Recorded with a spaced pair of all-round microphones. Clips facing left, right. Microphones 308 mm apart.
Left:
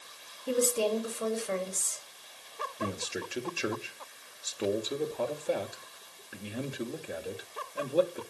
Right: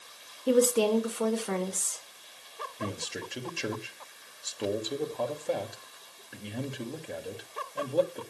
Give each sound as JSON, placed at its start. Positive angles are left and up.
{"t": 0.5, "sound": "a woman speaking", "side_deg": -70, "distance_m": 2.5}
{"t": 2.8, "sound": "a man speaking", "side_deg": 5, "distance_m": 1.9}